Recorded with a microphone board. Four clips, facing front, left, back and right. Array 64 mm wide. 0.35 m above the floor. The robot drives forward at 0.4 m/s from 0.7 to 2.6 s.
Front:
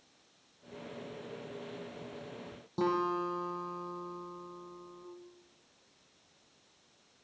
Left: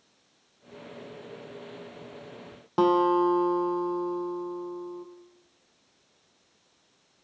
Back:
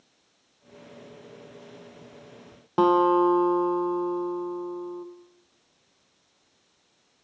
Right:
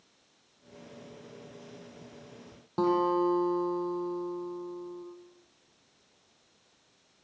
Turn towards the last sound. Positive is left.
turn(degrees=155)